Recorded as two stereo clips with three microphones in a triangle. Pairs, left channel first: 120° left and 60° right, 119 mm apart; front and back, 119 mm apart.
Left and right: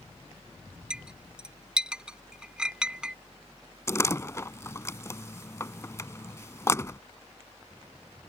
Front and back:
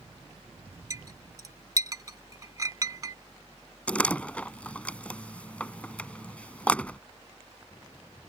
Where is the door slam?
70° left.